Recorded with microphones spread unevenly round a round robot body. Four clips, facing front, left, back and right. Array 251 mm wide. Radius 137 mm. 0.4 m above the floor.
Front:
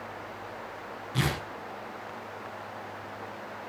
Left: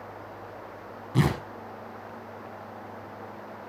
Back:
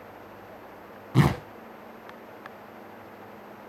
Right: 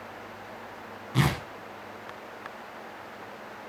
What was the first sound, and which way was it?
Tearing paper, 165° left.